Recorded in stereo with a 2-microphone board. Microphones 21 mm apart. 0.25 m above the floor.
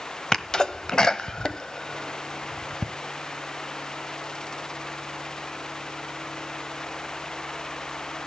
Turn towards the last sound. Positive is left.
turn(degrees=30)  # may be behind; listen again after turning